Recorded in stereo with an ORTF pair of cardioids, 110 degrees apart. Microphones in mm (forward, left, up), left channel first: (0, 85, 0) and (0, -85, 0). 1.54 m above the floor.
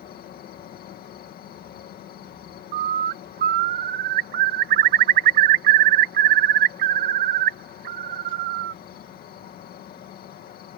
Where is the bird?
60° right.